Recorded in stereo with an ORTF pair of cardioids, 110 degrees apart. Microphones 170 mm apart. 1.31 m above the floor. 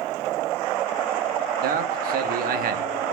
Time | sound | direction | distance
1.6 | a man speaking | 60° right | 0.9 m